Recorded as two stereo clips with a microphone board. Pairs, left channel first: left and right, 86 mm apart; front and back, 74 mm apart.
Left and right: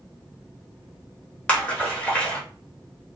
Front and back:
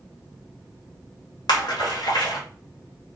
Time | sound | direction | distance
1.5 | a splash | 15° left | 1.2 m